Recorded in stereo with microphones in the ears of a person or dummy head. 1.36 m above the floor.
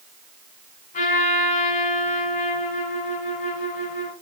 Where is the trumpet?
45° left (ahead or behind), 5 m.